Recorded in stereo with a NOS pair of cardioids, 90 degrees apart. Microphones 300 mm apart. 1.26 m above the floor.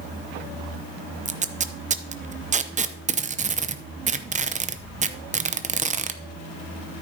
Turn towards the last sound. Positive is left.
turn(degrees=-25)